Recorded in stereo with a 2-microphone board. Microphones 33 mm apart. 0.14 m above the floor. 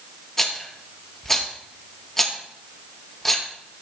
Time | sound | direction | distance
0.4 | a rattle | 15° left (ahead or behind) | 2.0 m